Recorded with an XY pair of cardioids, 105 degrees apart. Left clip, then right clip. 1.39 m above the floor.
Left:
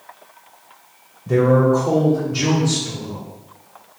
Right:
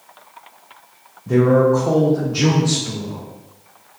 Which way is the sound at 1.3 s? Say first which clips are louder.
Right 1 dB; 5° left.